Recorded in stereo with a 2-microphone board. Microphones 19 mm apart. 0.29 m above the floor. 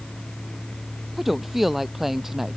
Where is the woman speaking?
5° right (ahead or behind); by 2.6 s 10° right (ahead or behind).